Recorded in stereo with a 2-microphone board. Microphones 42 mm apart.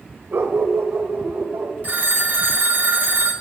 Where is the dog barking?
65° right (ahead or behind), 1.4 m.